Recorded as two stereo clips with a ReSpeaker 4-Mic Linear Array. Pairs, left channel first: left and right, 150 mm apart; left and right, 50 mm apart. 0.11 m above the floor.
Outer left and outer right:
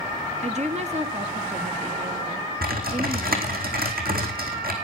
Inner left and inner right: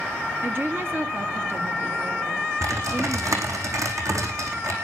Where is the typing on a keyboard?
75° right (ahead or behind), 4 m.